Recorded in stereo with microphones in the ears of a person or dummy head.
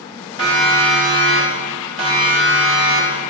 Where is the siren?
75° right (ahead or behind), 6 m; by 3.2 s 60° right (ahead or behind), 5 m.